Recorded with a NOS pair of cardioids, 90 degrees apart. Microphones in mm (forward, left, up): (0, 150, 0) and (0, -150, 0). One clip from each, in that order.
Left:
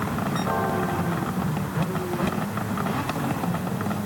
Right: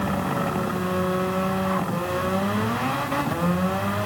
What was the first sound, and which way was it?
Only background noise.